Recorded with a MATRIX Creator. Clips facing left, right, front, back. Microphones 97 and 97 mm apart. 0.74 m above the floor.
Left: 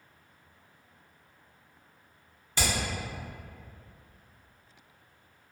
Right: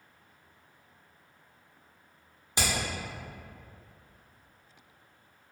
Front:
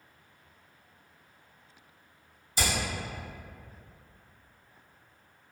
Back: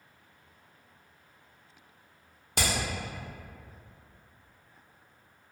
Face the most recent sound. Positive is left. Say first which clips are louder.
# even, even
turn(degrees=-160)